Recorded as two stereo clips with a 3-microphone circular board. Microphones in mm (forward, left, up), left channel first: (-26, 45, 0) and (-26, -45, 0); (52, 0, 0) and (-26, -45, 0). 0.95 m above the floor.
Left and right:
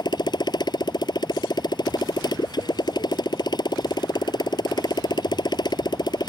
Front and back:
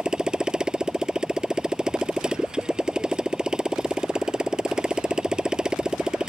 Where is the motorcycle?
130° left.